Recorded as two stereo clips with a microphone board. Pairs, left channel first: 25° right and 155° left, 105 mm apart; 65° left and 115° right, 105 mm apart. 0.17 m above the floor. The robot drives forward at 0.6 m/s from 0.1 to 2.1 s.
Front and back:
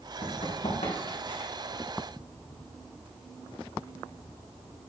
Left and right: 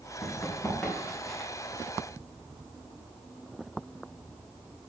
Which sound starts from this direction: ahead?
Running footsteps, at 0.2 s.